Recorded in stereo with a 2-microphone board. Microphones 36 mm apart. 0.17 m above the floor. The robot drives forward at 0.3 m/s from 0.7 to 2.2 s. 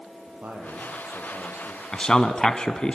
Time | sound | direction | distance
0.3 | a man speaking | 55° right (ahead or behind) | 5 m
1.9 | a man speaking | 20° left (ahead or behind) | 1.1 m